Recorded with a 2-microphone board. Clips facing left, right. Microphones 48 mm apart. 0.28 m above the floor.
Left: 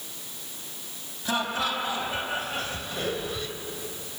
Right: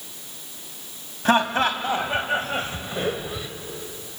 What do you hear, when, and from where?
1.2 s laughter: 50° right (ahead or behind), 2 m; by 3.5 s 10° right (ahead or behind), 1.4 m